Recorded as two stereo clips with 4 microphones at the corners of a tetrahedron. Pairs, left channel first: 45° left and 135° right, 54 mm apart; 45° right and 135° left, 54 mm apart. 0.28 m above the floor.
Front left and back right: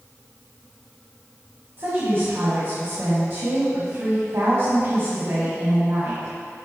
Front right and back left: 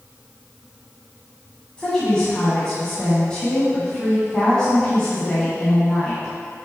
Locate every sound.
1.8 s a woman speaking: 115° right, 2.0 m